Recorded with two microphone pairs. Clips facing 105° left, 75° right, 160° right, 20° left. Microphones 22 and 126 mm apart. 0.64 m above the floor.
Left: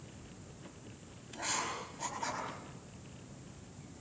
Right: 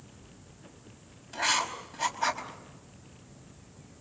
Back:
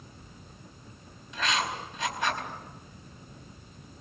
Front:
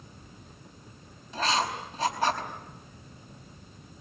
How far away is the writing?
About 4.5 m.